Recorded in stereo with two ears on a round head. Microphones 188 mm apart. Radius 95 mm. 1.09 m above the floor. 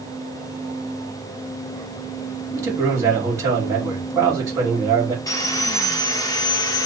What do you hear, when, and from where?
2.5 s a man speaking: 15° right (ahead or behind), 1.7 m
5.3 s sawing: 20° left (ahead or behind), 0.7 m